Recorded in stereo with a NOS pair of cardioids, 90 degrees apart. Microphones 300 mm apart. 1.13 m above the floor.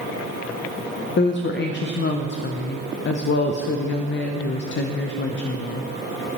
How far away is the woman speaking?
About 0.5 m.